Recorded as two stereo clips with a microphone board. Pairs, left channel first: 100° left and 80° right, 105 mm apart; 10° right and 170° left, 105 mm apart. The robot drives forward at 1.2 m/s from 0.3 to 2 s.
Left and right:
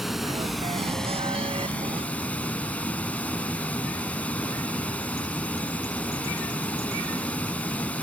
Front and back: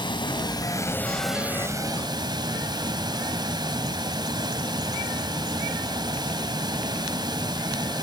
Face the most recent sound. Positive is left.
turn(degrees=170)